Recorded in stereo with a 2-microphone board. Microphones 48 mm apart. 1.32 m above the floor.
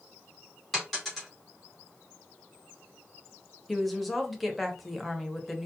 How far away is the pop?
I don't hear a pop.